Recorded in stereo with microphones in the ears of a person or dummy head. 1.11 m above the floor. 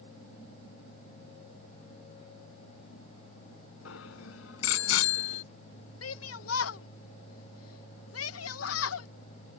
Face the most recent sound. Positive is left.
turn(degrees=70)  # may be behind; listen again after turning